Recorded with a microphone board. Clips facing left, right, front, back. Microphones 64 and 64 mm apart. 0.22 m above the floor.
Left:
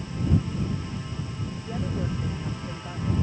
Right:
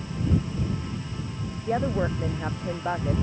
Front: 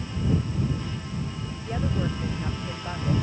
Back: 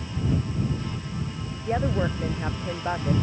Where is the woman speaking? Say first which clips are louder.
Right 7 dB, back 4 dB; 120° right.